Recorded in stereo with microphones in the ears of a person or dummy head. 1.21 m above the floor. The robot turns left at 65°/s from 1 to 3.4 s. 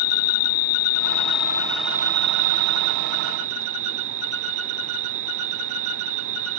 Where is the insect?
50° left; by 6.6 s 105° right.